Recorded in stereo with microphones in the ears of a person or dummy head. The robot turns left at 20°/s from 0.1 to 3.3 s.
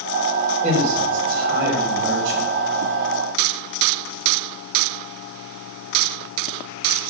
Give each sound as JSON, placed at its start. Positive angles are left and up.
{"t": 0.6, "sound": "a man speaking", "azimuth_deg": -45, "distance_m": 4.0}